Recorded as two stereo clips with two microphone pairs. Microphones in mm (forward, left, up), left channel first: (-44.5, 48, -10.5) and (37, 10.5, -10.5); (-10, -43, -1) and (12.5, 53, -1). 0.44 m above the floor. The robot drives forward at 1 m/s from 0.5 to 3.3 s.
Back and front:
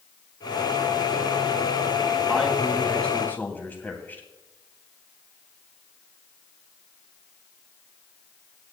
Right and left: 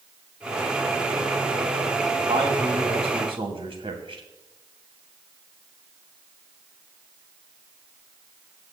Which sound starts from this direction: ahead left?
A man speaking, at 2.3 s.